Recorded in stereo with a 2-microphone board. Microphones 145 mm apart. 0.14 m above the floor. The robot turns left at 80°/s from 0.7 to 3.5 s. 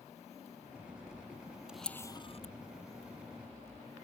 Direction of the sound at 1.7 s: 5° right (ahead or behind).